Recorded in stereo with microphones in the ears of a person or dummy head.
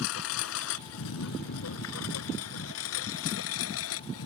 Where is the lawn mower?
70° left (ahead or behind); by 4.3 s 80° left.